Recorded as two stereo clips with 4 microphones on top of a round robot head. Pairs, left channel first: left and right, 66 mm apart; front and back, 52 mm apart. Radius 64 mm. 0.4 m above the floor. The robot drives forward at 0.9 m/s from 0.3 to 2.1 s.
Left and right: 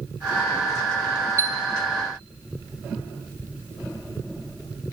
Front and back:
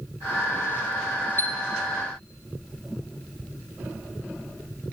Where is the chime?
40° right, 0.6 m; by 1.6 s 55° right, 0.5 m.